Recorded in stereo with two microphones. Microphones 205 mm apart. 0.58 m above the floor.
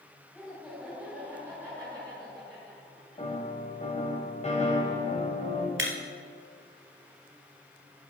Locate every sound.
0.3 s laughter: 5° left (ahead or behind), 2.5 m; by 3.8 s 25° right (ahead or behind), 6 m
3.2 s a piano: 35° left (ahead or behind), 1.9 m
5.8 s breaking glass: 70° right (ahead or behind), 1.7 m